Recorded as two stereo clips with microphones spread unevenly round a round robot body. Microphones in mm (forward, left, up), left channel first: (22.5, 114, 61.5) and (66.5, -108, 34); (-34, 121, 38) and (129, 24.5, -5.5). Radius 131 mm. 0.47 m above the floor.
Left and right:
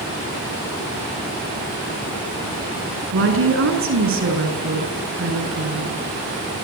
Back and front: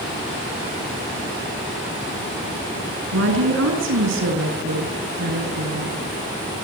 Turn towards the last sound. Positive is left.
turn(degrees=-55)